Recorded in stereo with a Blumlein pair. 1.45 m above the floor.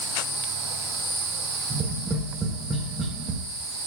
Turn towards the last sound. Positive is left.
turn(degrees=-20)